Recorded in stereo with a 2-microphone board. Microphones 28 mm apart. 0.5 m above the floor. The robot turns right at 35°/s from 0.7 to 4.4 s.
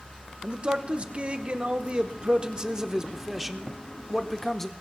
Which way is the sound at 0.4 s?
115° right.